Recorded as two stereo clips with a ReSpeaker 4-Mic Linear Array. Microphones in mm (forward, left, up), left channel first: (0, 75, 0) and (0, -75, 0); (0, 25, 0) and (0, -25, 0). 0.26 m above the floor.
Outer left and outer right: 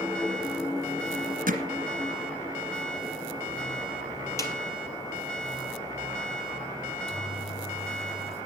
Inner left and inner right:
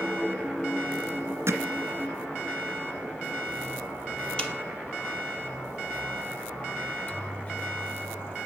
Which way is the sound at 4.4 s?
20° left (ahead or behind).